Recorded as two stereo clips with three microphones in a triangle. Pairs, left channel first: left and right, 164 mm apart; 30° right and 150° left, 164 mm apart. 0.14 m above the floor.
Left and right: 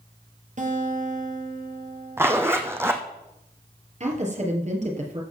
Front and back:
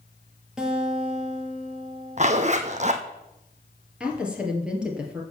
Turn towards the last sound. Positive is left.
turn(degrees=-125)